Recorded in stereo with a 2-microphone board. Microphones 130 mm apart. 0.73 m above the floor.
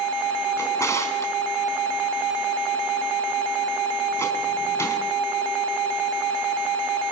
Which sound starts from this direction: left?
A drawer, at 0.6 s.